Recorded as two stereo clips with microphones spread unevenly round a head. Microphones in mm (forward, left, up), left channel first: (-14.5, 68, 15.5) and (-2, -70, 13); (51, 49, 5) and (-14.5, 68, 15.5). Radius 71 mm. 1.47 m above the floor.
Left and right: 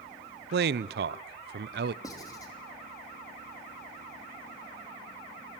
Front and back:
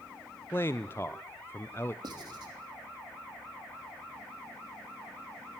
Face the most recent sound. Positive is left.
turn(degrees=160)